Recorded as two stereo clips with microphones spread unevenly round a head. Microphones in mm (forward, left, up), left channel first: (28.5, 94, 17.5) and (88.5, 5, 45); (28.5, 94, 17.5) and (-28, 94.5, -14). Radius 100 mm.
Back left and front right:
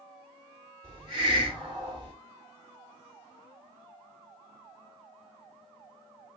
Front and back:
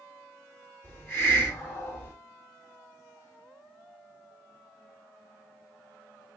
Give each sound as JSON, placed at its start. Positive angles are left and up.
{"t": 0.8, "sound": "a hiss", "azimuth_deg": -50, "distance_m": 1.3}